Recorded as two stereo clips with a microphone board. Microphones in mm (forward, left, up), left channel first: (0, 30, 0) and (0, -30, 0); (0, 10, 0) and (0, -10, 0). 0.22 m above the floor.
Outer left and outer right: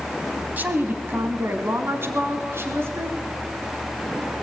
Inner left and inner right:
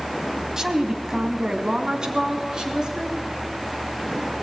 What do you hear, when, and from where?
0.6 s a woman speaking: 30° right (ahead or behind), 1.4 m; by 3.2 s 45° right (ahead or behind), 3 m